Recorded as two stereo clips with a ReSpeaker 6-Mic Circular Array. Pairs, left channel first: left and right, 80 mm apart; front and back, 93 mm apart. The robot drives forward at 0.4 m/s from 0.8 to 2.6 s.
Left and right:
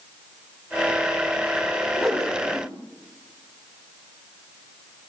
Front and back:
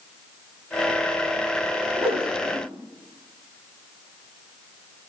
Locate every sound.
2.0 s a whoosh: 175° left, 6.5 m